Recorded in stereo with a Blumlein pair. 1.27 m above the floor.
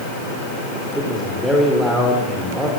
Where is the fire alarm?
I don't hear a fire alarm.